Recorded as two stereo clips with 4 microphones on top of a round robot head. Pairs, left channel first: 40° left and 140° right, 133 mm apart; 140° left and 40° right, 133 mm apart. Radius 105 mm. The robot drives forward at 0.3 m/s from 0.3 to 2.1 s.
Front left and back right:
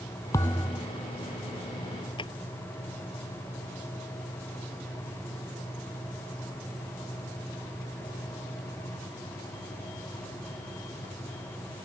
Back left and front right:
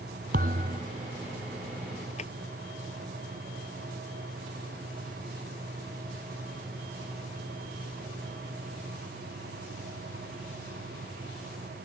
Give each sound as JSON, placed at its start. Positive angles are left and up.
{"t": 0.3, "sound": "a thud", "azimuth_deg": -25}
{"t": 2.2, "sound": "a drawer", "azimuth_deg": 100}